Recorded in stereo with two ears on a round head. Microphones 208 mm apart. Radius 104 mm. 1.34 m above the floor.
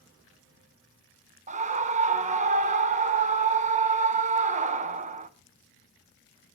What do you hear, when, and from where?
1.5 s a scream: 30° right (ahead or behind), 0.8 m